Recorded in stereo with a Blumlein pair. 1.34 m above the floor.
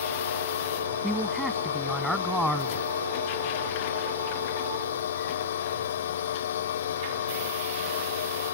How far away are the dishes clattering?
I don't hear dishes clattering.